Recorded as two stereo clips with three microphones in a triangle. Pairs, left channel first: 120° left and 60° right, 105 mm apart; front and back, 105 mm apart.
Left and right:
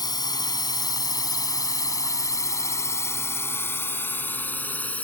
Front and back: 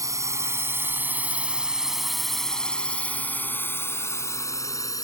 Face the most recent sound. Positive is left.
turn(degrees=45)